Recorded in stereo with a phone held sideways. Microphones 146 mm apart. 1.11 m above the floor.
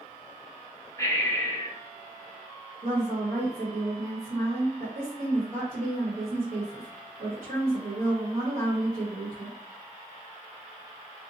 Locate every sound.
1.0 s breathing: 20° left (ahead or behind), 0.6 m
2.8 s a woman speaking: 80° right, 1.2 m